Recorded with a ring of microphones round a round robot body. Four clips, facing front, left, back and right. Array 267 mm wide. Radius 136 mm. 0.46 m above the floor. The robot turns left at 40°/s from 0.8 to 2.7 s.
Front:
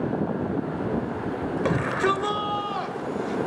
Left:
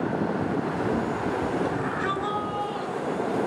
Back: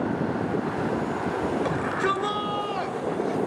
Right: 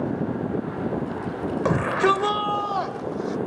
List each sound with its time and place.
1.6 s a shout: 70° right, 1.8 m; by 3.4 s 110° right, 1.8 m